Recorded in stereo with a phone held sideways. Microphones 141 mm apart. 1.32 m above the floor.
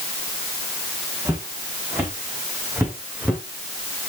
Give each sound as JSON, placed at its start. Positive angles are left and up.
{"t": 1.2, "sound": "footsteps", "side_deg": -20, "distance_m": 5.0}